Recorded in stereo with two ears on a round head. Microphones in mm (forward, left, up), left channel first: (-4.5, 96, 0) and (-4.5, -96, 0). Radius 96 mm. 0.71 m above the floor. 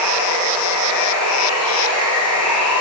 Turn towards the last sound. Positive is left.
turn(degrees=80)